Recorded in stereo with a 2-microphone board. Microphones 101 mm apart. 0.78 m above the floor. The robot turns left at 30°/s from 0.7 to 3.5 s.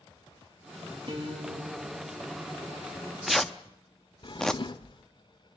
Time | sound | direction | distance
1.1 | a guitar | 130° right | 6.5 m
2.9 | tearing paper | 15° right (ahead or behind) | 0.6 m
4.2 | a drawer | 45° left (ahead or behind) | 0.5 m